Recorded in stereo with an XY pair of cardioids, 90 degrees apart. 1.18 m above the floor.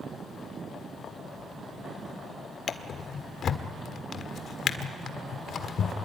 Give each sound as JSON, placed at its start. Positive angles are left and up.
{"t": 2.7, "sound": "a drawer", "azimuth_deg": 60, "distance_m": 1.6}